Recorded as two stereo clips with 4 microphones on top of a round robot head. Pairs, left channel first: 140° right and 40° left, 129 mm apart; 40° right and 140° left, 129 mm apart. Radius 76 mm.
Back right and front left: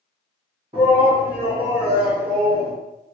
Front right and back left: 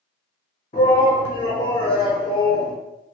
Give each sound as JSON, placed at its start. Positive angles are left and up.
{"t": 0.7, "sound": "a shout", "azimuth_deg": -20, "distance_m": 1.7}